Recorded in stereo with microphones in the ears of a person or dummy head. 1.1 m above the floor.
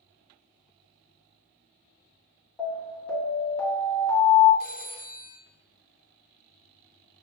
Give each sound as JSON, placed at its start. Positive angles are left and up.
{"t": 2.6, "sound": "an alarm", "side_deg": 5, "distance_m": 1.6}
{"t": 4.6, "sound": "a phone ringing", "side_deg": 30, "distance_m": 1.3}